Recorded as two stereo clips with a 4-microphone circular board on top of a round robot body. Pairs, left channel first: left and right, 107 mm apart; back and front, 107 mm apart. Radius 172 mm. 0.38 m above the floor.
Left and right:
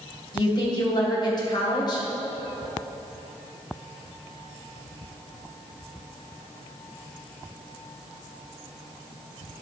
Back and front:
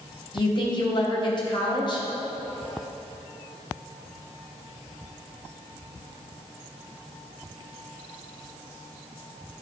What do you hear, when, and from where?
0.3 s a woman speaking: 135° left, 2.5 m